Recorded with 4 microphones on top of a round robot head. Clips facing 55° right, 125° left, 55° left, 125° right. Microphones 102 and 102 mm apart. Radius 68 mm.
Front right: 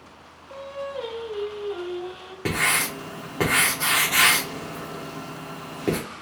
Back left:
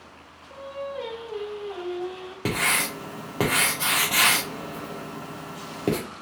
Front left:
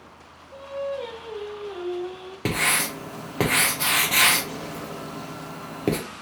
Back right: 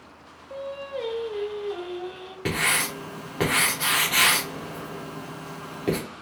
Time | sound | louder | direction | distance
0.5 | singing | front right 1 dB, front left 2 dB | 135° right | 1.3 m
2.5 | writing | front right 1 dB, front left 1 dB | 60° left | 0.6 m